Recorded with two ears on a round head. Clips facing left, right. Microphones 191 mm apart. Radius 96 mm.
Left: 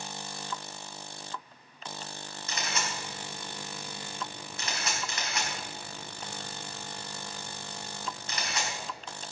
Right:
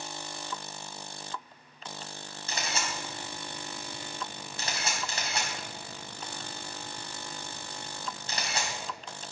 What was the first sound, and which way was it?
A camera shutter, 25° right (ahead or behind).